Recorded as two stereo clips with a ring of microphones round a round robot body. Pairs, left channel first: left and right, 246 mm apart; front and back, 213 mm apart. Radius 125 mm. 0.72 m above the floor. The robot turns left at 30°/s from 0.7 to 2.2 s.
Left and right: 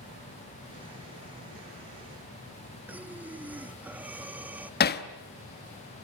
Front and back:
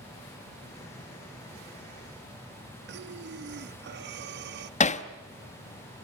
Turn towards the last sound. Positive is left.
turn(degrees=50)